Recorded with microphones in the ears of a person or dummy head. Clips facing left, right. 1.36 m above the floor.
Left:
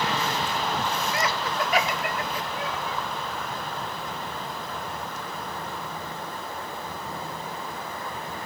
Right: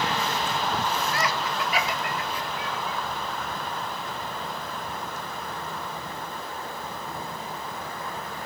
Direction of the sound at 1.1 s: 15° left (ahead or behind).